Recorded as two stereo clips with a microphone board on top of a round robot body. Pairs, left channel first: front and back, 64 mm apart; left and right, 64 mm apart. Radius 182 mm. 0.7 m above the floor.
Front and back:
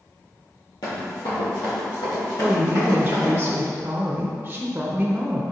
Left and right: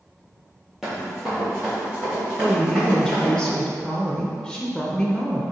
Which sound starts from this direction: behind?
A woman speaking, at 2.4 s.